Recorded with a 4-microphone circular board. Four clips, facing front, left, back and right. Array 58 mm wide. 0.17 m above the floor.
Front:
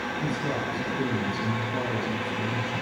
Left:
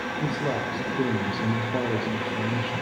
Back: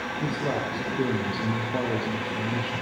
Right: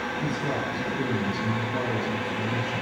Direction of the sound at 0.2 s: 125° left.